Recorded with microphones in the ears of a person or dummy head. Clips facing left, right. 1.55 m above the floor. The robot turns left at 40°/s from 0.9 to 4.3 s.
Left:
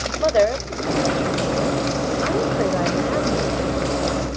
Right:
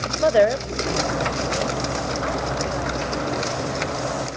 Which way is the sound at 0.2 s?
170° right.